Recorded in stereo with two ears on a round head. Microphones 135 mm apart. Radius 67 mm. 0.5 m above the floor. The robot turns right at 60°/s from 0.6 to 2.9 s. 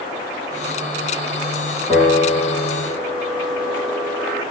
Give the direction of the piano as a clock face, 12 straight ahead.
11 o'clock.